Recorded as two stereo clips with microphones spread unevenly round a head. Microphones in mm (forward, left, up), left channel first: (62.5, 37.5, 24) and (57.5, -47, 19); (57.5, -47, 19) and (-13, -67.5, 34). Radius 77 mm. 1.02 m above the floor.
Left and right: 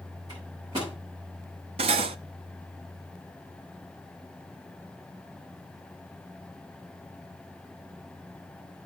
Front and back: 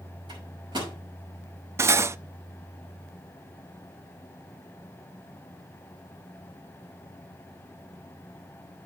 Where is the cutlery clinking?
120° right, 0.5 m.